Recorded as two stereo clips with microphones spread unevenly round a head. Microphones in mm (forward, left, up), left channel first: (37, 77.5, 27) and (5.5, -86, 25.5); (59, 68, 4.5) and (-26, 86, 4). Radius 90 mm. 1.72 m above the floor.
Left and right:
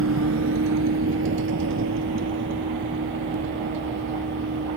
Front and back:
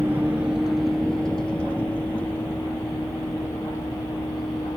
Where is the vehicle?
115° right; by 4.8 s 85° right.